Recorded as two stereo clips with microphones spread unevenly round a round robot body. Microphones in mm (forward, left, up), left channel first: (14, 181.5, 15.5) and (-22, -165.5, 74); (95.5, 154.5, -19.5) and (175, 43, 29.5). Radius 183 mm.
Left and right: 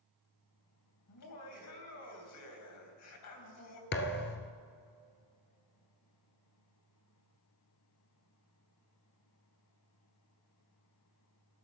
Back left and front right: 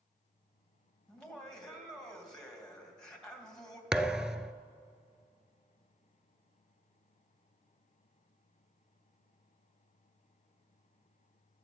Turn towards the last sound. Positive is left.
turn(degrees=20)